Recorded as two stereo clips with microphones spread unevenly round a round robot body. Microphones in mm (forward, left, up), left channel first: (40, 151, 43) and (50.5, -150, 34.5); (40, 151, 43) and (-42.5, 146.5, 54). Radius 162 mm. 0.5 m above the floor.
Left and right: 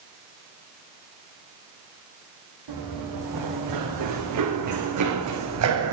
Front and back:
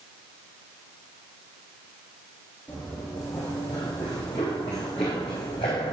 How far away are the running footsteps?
About 4 m.